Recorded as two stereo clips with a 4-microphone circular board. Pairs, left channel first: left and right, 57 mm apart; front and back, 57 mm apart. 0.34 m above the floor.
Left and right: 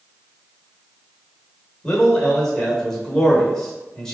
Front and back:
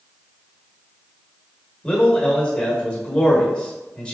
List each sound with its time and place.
1.8 s a man speaking: 30° left, 1.0 m